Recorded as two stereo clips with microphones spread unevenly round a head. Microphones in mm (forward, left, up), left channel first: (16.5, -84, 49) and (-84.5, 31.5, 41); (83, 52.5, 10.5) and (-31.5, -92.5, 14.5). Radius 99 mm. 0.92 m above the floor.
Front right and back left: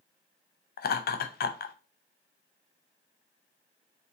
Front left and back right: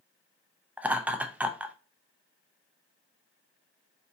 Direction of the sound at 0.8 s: 45° right.